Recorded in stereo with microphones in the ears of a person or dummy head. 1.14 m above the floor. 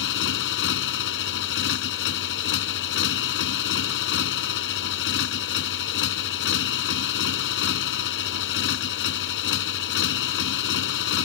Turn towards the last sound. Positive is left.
turn(degrees=65)  # may be behind; listen again after turning